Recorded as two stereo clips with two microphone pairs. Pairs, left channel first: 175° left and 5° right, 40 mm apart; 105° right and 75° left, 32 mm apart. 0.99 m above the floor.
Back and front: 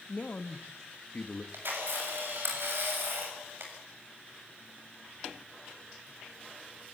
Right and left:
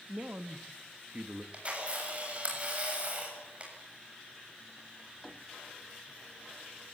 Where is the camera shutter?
20° left, 7.5 m.